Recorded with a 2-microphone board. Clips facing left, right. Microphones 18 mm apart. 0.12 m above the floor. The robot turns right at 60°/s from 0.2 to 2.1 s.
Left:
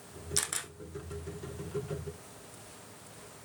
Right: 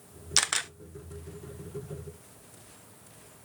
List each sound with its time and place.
0.4 s a camera shutter: 40° right (ahead or behind), 0.6 m; by 0.7 s 45° right (ahead or behind), 0.6 m